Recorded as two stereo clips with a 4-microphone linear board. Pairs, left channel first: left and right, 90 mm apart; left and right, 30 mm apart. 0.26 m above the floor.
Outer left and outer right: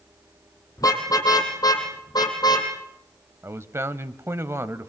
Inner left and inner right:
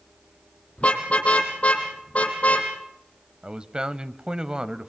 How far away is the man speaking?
About 1.0 m.